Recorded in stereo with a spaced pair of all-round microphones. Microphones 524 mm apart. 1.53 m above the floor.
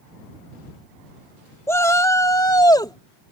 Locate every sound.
1.7 s a shout: 5° left (ahead or behind); by 3.3 s 10° left (ahead or behind)